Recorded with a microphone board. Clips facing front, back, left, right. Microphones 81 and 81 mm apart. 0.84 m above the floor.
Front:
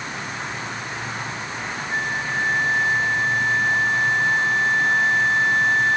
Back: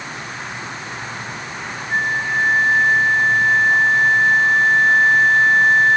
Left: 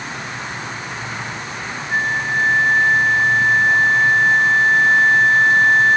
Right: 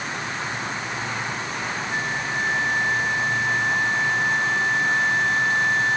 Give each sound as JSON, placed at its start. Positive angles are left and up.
{"t": 1.9, "sound": "a flute", "azimuth_deg": 130}